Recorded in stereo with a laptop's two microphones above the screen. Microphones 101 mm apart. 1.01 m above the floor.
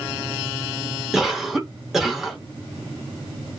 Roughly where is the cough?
Centre.